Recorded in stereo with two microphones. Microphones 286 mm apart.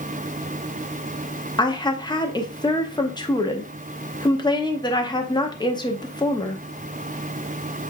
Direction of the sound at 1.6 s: 15° left (ahead or behind).